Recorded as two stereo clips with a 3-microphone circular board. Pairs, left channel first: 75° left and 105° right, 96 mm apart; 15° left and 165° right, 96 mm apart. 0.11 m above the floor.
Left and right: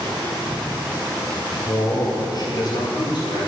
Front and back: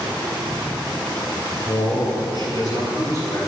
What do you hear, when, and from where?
1.6 s a man speaking: 35° left, 2.5 m; by 3.4 s 55° left, 3.5 m